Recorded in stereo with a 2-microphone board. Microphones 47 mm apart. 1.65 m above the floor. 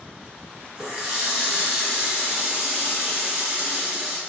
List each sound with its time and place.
0.8 s a running tap: 15° right (ahead or behind), 0.6 m